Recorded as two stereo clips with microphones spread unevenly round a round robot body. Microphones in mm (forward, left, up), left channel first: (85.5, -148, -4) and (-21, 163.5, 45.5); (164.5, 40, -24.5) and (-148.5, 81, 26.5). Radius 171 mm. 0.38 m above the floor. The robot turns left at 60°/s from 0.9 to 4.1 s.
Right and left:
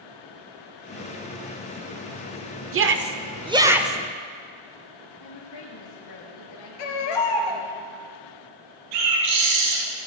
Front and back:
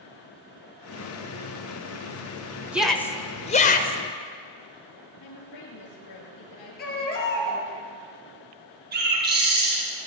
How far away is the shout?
About 1.1 m.